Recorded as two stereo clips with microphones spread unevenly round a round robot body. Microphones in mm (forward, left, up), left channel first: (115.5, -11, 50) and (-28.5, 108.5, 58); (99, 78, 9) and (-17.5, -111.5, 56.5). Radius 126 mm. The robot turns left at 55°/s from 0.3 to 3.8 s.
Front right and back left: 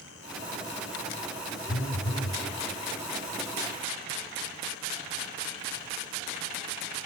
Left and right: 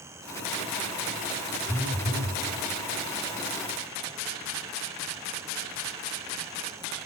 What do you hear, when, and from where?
1.7 s a phone buzzing: 45° right, 1.3 m; by 2.4 s 85° right, 1.3 m